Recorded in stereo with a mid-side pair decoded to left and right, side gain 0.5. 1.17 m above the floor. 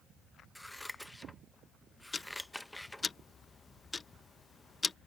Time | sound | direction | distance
0.6 | scissors | 10° left | ?
2.1 | ticking | 30° left | ?